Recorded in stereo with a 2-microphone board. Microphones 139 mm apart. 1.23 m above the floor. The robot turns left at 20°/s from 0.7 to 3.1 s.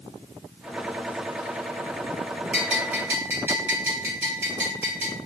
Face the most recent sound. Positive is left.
turn(degrees=-15)  # may be behind; listen again after turning